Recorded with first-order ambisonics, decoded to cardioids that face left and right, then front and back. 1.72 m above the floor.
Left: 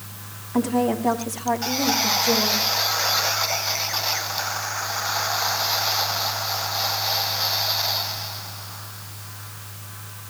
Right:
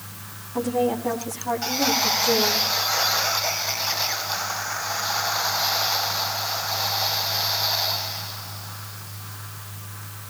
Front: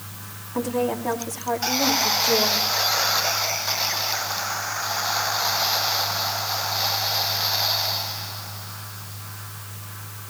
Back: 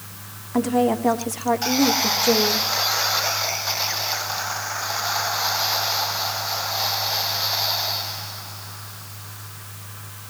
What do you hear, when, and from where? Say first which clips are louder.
0.5 s a woman speaking: left 1 dB, back 4 dB; 150° left, 2.5 m; by 2.7 s straight behind, 3.5 m